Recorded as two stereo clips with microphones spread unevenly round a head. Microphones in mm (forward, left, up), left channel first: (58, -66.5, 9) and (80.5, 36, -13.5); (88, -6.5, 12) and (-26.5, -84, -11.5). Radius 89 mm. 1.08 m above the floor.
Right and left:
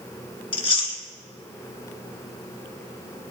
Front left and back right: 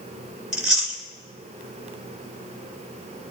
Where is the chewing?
65° right, 2 m.